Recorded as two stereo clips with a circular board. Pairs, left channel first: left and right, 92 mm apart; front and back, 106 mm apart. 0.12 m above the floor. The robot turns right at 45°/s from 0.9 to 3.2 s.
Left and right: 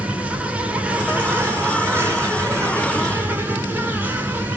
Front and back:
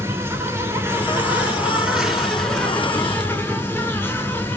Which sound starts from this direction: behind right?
An insect, at 0.0 s.